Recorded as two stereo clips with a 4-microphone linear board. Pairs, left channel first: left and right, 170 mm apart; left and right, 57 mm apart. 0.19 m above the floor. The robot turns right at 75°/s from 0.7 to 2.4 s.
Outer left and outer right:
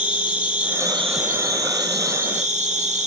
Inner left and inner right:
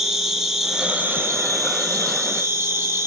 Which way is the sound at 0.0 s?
175° right.